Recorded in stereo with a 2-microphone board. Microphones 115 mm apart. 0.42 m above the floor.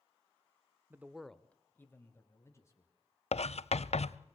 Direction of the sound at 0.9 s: 20° right (ahead or behind).